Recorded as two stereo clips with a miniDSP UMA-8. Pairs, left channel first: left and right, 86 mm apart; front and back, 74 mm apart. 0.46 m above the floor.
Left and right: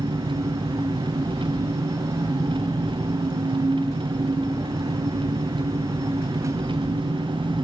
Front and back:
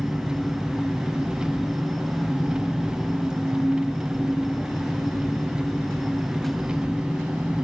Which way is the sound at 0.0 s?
100° right.